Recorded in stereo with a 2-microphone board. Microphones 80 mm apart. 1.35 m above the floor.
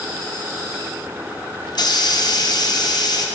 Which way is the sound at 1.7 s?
60° left (ahead or behind).